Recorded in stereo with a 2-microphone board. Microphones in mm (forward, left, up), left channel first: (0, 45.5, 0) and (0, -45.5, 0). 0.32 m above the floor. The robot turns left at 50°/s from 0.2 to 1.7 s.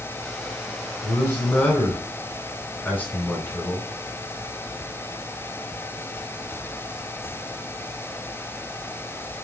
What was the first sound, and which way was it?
A man speaking, 70° left.